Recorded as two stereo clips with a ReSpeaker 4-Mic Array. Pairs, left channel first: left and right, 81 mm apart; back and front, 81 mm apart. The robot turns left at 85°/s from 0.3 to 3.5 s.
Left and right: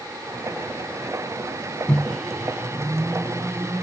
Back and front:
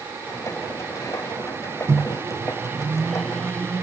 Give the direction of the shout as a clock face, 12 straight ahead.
I don't hear a shout.